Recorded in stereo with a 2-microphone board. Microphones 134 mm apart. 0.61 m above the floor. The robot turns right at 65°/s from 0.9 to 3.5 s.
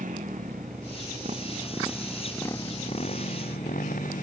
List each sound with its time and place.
0.0 s a motorcycle: 80° right; by 4.2 s 85° left